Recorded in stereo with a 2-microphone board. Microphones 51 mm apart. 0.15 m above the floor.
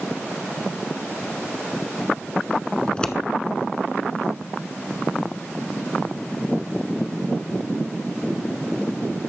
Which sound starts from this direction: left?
Scissors, at 2.9 s.